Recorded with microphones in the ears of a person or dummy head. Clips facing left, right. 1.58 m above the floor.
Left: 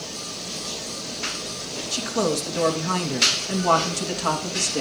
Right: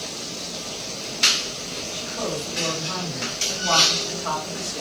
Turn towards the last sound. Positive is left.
turn(degrees=55)  # may be behind; listen again after turning